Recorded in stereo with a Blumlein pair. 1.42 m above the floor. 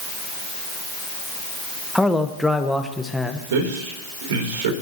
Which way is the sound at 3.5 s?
55° right.